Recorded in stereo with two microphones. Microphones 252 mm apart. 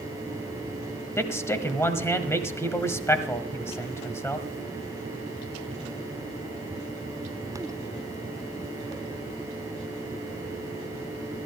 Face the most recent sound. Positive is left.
turn(degrees=10)  # may be behind; listen again after turning